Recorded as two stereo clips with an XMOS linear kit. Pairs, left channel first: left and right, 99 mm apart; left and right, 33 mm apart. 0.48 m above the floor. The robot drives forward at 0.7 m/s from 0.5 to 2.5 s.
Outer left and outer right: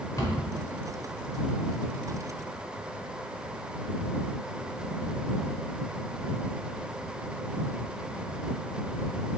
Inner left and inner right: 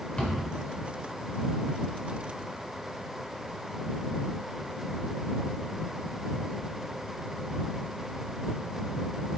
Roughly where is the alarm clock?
I don't hear an alarm clock.